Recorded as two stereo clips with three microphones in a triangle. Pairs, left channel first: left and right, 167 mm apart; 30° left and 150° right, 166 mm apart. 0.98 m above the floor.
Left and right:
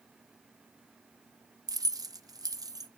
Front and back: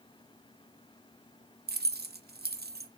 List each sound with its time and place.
1.7 s keys jangling: 160° right, 0.6 m